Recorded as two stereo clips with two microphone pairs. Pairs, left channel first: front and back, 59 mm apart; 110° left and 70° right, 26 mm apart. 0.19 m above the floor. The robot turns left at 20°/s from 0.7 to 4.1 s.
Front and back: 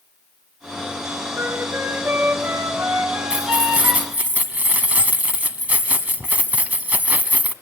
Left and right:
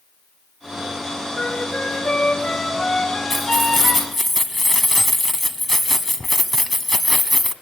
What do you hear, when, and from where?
1.3 s a flute: 165° right, 2 m; by 4.1 s 140° left, 2 m
3.3 s keys jangling: 145° right, 1.1 m; by 7.5 s 165° right, 1.1 m